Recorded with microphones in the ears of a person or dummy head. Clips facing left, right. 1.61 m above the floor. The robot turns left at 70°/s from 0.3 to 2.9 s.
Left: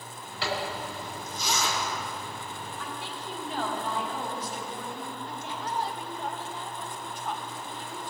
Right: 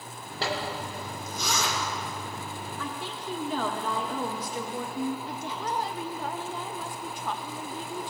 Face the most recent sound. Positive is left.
turn(degrees=-60)  # may be behind; listen again after turning